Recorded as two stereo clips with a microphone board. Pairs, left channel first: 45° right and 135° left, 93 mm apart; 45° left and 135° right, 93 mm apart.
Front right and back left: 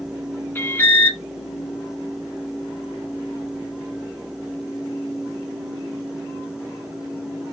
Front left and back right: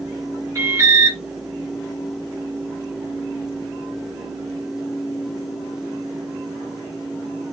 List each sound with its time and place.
0.6 s an alarm: 100° right, 2 m